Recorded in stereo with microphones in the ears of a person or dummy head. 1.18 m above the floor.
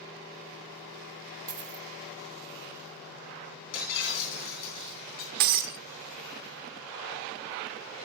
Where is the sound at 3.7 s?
75° left (ahead or behind), 8 m.